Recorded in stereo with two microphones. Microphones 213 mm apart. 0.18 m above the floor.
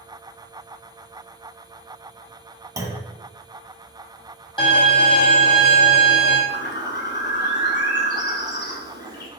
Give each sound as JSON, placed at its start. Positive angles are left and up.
{"t": 2.8, "sound": "a clunk", "side_deg": -15, "distance_m": 0.6}
{"t": 4.6, "sound": "a violin", "side_deg": 25, "distance_m": 1.2}
{"t": 6.5, "sound": "a bird", "side_deg": 55, "distance_m": 0.7}